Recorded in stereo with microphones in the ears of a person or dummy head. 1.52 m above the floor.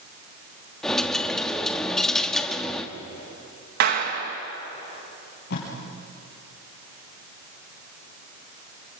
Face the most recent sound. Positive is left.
turn(degrees=60)  # may be behind; listen again after turning